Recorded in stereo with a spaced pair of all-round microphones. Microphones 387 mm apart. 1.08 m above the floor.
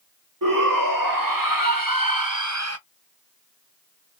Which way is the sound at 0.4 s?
60° right (ahead or behind).